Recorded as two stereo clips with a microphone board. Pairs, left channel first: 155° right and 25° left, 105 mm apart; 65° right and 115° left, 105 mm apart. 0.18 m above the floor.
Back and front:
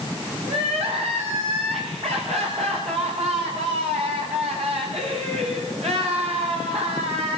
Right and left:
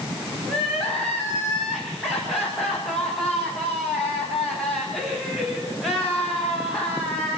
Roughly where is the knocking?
No knocking in this recording.